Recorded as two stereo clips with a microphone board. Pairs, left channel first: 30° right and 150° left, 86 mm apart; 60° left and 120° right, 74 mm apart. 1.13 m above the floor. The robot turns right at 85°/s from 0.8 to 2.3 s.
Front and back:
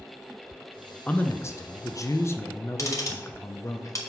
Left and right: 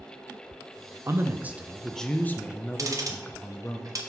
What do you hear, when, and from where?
1.1 s a man speaking: 95° right, 0.7 m; by 3.8 s 10° left, 0.7 m
2.8 s ticking: 80° right, 1.2 m